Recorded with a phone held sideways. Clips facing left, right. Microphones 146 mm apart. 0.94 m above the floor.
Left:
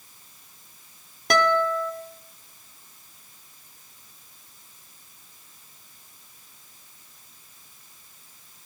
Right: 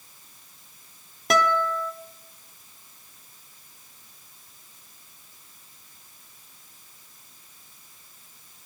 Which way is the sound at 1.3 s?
Centre (ahead or behind).